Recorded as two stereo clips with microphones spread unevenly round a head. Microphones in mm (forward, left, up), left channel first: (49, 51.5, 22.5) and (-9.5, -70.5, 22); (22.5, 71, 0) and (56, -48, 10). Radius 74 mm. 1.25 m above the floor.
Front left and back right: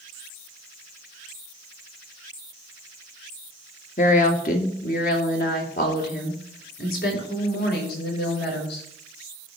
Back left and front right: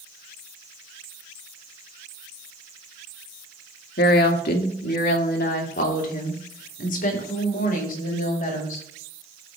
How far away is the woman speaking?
About 1.5 m.